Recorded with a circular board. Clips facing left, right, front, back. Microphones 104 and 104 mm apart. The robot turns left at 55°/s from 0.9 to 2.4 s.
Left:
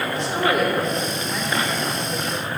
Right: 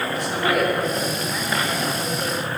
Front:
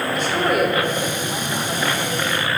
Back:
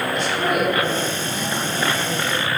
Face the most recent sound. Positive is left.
turn(degrees=-50)